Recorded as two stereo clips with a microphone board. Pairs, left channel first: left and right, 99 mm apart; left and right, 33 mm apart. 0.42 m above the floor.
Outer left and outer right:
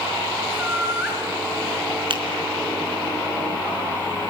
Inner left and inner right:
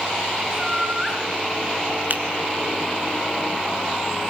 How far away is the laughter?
About 6 m.